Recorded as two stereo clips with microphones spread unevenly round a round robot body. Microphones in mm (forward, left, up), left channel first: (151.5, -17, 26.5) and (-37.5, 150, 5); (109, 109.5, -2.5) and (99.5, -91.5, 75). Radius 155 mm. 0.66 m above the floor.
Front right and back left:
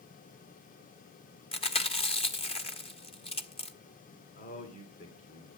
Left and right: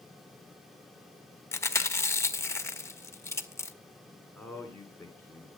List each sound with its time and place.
1.5 s chewing: 25° left, 1.2 m
4.3 s a man speaking: 10° left, 2 m